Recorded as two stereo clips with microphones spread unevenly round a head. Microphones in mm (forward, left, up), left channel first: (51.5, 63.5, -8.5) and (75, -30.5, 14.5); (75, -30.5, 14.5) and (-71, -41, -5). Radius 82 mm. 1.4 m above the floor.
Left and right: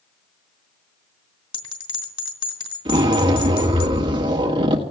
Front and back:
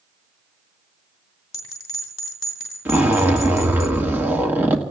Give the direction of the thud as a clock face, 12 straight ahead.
No thud in this recording.